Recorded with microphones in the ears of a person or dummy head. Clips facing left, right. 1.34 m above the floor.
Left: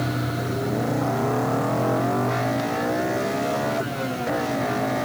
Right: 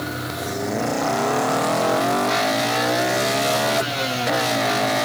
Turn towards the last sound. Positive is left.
No sound to turn to.